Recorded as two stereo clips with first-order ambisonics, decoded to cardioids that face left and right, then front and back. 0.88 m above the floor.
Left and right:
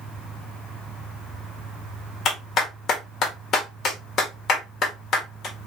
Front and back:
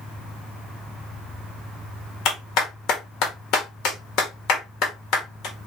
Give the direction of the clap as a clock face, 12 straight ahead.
11 o'clock.